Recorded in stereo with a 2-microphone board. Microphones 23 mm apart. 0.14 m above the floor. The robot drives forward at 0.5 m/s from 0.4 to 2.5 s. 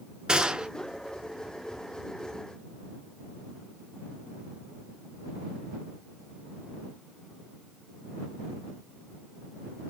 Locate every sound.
0.3 s a gunshot: 35° right (ahead or behind), 0.6 m; by 0.7 s 40° right (ahead or behind), 0.5 m